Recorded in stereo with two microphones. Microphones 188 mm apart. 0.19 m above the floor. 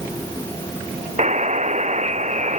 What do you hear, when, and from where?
1.2 s a buzzer: 40° right (ahead or behind)